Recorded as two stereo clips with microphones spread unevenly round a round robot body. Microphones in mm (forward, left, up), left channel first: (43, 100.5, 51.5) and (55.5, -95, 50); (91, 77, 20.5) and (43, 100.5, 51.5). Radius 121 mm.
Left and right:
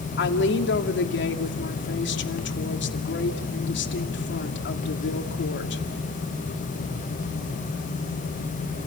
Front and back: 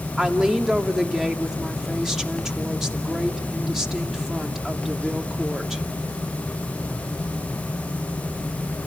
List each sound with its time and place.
0.2 s a woman speaking: 65° left, 2 m